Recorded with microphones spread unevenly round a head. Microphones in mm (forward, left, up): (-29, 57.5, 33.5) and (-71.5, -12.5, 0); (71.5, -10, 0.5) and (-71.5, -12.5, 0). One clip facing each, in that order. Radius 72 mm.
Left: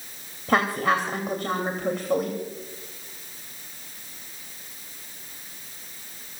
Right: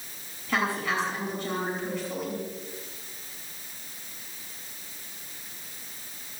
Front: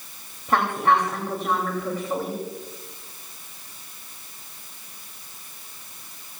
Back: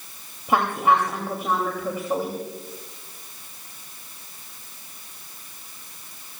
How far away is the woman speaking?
About 2.5 m.